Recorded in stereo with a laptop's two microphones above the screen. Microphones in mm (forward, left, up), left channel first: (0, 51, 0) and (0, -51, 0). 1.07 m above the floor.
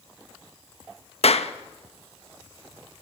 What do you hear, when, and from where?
1.2 s a clap: 70° left (ahead or behind), 1.0 m